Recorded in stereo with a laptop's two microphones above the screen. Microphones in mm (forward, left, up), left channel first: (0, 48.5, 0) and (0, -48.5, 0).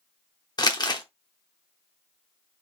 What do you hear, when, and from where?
0.6 s crumpling: 45° left (ahead or behind), 0.8 m